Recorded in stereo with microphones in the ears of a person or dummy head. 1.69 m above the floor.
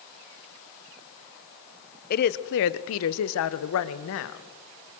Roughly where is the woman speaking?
Left.